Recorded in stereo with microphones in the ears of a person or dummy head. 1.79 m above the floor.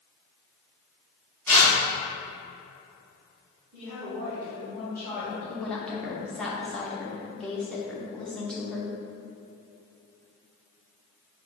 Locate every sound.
1.5 s tearing paper: centre (ahead or behind), 1.7 m
3.7 s a woman speaking: 25° right (ahead or behind), 1.9 m
5.5 s a woman speaking: 5° left (ahead or behind), 0.8 m